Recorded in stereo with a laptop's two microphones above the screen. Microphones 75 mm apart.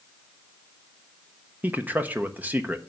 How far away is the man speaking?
About 0.6 m.